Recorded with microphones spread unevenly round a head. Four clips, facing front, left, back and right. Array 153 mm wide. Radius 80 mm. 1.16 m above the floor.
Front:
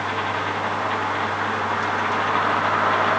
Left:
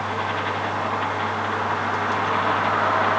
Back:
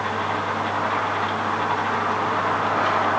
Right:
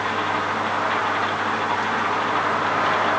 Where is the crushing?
No crushing in this recording.